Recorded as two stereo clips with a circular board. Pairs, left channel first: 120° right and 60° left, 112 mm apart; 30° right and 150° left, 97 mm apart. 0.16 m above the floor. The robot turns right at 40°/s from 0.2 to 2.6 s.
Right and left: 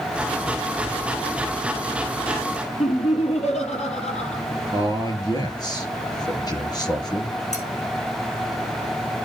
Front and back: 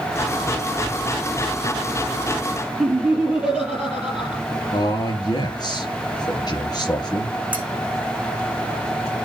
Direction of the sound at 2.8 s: 130° right.